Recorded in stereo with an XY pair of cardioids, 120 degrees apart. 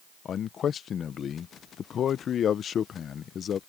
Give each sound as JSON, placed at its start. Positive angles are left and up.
{"t": 0.2, "sound": "a man speaking", "azimuth_deg": 45}